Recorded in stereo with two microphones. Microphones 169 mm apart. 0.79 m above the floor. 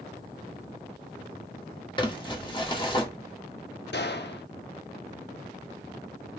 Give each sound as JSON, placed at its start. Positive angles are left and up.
{"t": 2.0, "sound": "crumpling", "side_deg": 30, "distance_m": 1.3}
{"t": 3.9, "sound": "a gunshot", "side_deg": 85, "distance_m": 0.7}